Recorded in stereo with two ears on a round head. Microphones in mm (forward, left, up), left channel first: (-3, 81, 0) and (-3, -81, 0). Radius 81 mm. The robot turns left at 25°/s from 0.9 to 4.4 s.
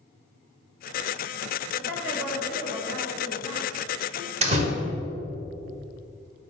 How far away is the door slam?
About 1.7 m.